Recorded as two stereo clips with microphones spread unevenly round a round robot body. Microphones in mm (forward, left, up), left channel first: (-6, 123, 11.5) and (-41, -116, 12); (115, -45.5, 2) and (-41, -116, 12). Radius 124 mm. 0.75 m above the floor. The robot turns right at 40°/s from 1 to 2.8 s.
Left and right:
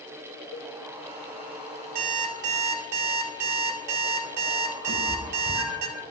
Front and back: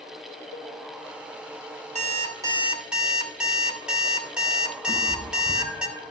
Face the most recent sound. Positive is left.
turn(degrees=-145)